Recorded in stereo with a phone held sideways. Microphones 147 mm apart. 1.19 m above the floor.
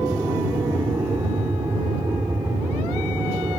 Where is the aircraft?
15° right (ahead or behind).